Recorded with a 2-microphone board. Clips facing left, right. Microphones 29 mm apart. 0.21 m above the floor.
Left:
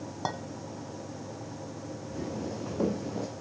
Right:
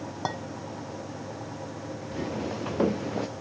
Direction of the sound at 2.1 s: 70° right (ahead or behind).